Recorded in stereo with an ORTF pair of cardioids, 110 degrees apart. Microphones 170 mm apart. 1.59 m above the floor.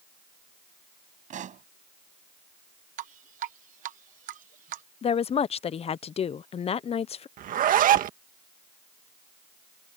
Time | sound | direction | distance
1.3 | a pop | 50° right | ?
3.0 | dripping | 55° right | ?
5.0 | a woman speaking | 35° left | ?
7.4 | a zipper | 55° right | ?